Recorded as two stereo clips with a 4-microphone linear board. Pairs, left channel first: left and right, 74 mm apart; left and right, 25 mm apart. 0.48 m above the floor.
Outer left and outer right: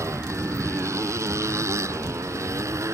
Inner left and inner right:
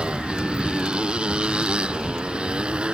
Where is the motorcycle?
40° right (ahead or behind).